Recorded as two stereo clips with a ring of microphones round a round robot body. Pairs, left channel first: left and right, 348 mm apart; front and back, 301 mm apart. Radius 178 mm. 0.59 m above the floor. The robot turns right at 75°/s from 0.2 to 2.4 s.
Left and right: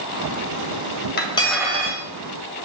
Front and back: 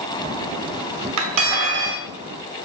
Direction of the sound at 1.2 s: 150° left.